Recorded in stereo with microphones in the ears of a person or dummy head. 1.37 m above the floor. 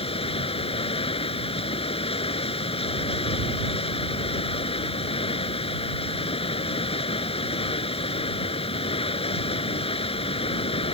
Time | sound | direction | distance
0.0 | running water | 30° left (ahead or behind) | ?